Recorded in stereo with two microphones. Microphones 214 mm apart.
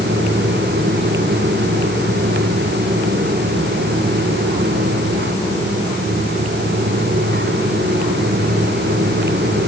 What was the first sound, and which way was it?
Only background noise.